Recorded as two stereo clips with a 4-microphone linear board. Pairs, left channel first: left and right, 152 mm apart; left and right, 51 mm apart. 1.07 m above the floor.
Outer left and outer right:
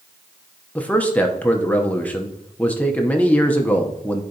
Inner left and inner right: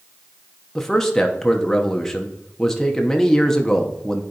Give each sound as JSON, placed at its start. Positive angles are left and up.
{"t": 0.8, "sound": "a man speaking", "side_deg": 10, "distance_m": 0.7}